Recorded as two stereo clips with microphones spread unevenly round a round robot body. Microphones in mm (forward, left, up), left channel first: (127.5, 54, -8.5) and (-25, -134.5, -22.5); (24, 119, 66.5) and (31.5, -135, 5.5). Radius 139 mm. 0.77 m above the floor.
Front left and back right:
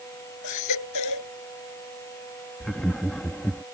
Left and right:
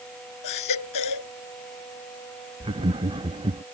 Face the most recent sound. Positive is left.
turn(degrees=-35)